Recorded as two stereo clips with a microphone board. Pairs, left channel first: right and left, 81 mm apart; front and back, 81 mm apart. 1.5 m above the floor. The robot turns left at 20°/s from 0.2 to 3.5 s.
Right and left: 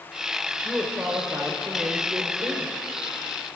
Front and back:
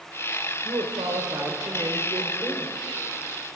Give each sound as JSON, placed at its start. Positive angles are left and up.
{"t": 0.7, "sound": "a woman speaking", "azimuth_deg": 165, "distance_m": 0.9}